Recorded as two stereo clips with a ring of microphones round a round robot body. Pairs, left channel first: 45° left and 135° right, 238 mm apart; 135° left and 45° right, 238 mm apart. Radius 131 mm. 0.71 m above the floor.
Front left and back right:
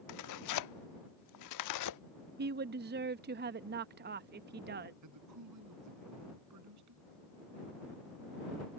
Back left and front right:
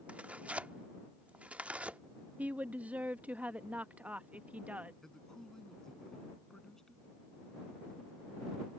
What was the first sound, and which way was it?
Tearing paper, 40° left.